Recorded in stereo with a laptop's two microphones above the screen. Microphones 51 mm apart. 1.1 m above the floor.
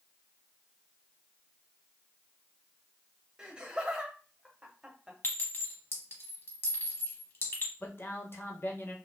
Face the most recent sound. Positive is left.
turn(degrees=50)  # may be behind; listen again after turning